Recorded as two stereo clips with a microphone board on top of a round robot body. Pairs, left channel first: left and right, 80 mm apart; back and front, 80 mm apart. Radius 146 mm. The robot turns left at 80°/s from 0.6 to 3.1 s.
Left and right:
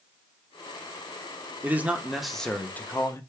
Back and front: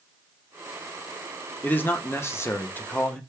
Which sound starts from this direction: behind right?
A man speaking, at 1.6 s.